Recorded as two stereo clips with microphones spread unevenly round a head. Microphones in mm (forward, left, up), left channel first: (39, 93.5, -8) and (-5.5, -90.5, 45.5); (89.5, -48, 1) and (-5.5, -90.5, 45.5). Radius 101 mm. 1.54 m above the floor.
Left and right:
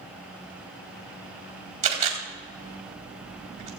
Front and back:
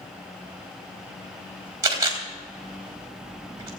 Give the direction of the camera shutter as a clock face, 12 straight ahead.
5 o'clock.